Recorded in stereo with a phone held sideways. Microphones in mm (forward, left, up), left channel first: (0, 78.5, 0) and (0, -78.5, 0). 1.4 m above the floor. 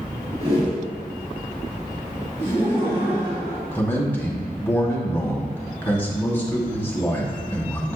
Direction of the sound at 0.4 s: 40° right (ahead or behind).